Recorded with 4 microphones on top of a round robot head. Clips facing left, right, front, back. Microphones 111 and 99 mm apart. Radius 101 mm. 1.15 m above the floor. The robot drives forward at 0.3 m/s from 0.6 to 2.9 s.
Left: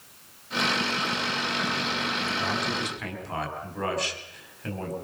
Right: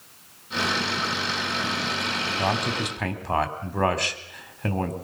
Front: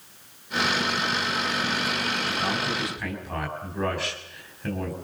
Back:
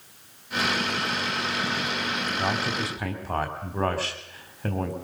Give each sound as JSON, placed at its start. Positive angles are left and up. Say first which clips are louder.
{"t": 2.4, "sound": "a man speaking", "louder": "right 4 dB, back 2 dB", "azimuth_deg": -120, "distance_m": 3.5}